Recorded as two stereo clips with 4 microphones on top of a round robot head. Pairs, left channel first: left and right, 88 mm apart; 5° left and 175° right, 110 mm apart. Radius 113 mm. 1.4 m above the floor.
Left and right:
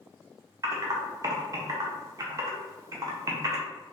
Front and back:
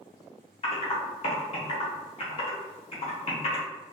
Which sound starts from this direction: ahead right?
Typing on a keyboard, at 0.6 s.